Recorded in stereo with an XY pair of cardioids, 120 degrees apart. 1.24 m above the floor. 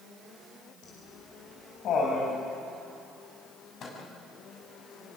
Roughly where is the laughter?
Ahead left.